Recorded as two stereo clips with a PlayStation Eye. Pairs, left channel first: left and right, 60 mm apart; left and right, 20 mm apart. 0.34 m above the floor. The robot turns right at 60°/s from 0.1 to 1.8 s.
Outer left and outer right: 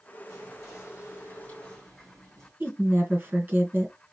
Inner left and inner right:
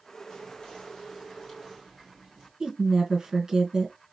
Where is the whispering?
80° left, 3.5 m; by 2.5 s 170° left, 3.5 m.